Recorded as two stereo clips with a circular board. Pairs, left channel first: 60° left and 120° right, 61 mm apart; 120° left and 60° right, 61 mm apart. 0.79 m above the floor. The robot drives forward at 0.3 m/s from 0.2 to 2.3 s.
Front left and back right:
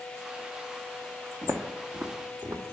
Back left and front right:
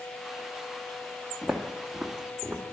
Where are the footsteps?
145° right, 1.3 m; by 2.6 s 110° right, 2 m.